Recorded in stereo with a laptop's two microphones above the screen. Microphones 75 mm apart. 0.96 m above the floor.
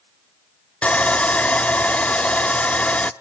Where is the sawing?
15° left (ahead or behind), 0.6 m.